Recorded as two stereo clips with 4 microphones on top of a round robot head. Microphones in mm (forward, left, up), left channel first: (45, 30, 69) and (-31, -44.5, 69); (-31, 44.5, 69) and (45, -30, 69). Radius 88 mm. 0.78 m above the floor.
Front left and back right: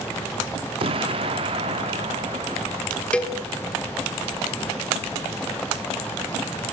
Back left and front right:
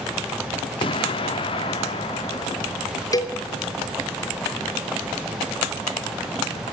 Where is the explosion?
Straight behind, 0.6 m.